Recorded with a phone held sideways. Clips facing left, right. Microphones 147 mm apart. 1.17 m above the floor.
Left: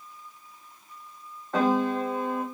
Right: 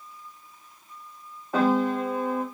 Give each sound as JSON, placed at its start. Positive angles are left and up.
{"t": 1.5, "sound": "a piano", "side_deg": -10, "distance_m": 1.3}